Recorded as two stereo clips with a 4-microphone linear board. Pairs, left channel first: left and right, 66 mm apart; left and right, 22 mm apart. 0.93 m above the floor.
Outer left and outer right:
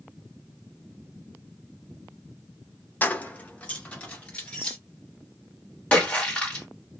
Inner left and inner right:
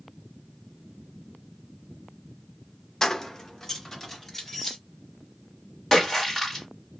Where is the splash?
15° left (ahead or behind), 1.5 m.